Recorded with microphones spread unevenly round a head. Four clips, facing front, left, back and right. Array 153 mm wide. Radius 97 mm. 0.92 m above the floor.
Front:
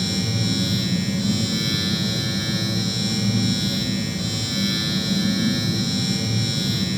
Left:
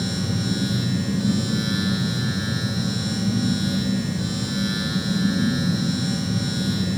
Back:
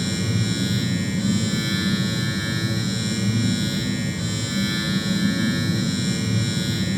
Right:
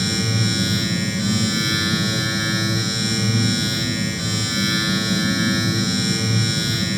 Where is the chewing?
I don't hear chewing.